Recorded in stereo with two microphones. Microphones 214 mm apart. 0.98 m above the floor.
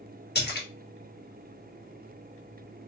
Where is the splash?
55° left (ahead or behind), 1.2 m.